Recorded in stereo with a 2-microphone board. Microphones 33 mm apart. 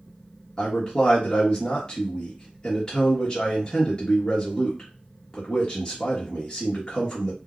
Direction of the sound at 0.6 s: 20° left (ahead or behind).